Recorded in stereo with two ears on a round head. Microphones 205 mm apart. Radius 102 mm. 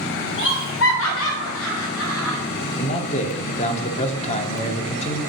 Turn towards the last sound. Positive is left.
turn(degrees=30)  # may be behind; listen again after turning